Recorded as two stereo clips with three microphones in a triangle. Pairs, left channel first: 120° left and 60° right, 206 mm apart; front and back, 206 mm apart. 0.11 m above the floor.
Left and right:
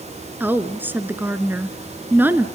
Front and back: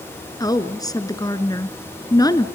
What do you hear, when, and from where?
0.4 s a woman speaking: straight ahead, 1.1 m